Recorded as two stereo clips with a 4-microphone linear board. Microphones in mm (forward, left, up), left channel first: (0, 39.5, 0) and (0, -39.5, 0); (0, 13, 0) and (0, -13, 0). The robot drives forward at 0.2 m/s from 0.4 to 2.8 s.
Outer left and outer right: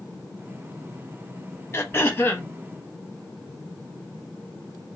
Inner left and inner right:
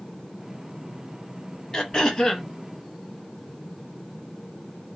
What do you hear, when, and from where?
1.7 s throat clearing: 30° left (ahead or behind), 0.6 m; by 2.5 s 25° left (ahead or behind), 0.7 m